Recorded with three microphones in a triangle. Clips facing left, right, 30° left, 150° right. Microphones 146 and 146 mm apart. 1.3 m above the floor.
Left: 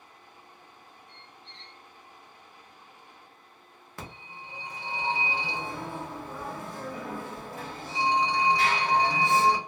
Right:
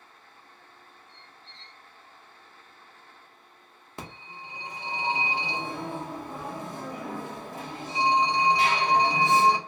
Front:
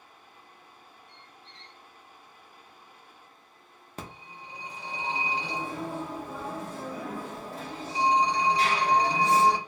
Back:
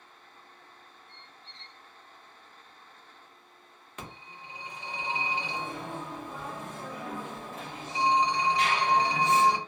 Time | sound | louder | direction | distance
1.1 | a squeak | left 1 dB, front 1 dB | 155° left | 1.5 m
4.0 | a phone ringing | right 2 dB, front 2 dB | 20° right | 0.8 m